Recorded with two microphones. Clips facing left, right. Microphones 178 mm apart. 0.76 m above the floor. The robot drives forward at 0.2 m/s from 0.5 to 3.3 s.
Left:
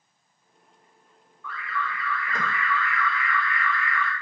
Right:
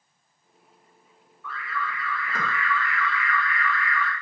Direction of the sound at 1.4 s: 5° right (ahead or behind).